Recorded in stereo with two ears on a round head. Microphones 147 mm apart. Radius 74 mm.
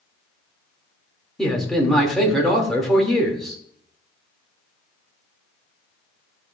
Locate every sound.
1.4 s a man speaking: centre (ahead or behind), 2 m